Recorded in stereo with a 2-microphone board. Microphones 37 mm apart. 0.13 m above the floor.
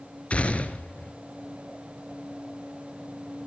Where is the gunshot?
35° left (ahead or behind), 1.8 m.